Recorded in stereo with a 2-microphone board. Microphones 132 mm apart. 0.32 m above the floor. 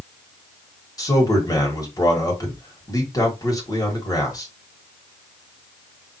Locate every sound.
1.0 s a man speaking: 30° left (ahead or behind), 1.5 m